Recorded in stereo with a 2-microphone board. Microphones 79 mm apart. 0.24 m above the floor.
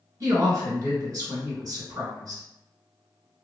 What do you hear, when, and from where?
0.2 s a woman speaking: 40° right (ahead or behind), 1.7 m